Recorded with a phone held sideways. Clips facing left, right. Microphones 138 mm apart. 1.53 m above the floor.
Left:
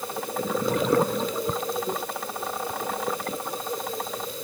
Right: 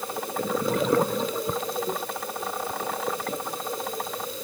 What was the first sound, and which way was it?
Only background noise.